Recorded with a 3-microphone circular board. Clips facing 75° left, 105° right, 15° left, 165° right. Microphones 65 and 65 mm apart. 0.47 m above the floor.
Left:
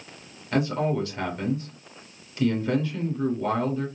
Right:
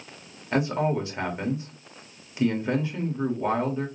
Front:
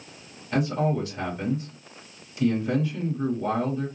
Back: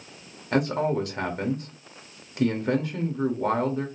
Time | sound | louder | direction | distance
0.5 | a man speaking | even, back 1 dB | 170° right | 1.3 m